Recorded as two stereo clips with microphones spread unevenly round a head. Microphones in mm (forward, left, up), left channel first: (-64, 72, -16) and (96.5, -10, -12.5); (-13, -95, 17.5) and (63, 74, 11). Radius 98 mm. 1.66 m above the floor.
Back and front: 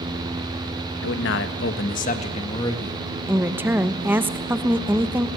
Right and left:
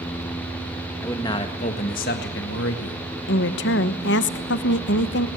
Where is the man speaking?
170° left, 1.8 m; by 3.0 s 130° right, 2 m.